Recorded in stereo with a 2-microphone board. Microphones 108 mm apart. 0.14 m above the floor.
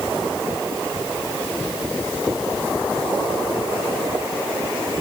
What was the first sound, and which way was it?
Only background noise.